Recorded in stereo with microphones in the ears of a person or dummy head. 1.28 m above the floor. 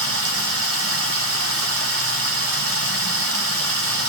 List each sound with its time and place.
0.0 s running water: 70° right (ahead or behind), 0.9 m